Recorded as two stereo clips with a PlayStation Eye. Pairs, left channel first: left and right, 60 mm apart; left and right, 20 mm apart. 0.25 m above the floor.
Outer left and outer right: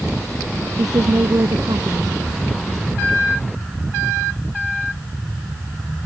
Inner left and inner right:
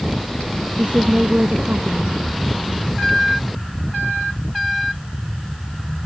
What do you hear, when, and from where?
0.8 s a woman speaking: 75° right (ahead or behind)